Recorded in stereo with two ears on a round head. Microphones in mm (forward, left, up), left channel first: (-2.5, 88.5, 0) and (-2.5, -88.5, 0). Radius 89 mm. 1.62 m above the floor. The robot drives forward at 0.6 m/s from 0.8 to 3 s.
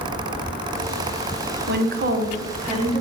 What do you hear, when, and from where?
1.7 s a woman speaking: 50° right (ahead or behind), 0.8 m; by 3.0 s 30° right (ahead or behind), 1.2 m